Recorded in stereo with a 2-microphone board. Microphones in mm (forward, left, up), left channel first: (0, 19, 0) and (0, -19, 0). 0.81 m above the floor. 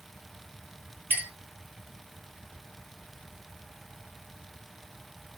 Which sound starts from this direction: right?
A clink, at 1.1 s.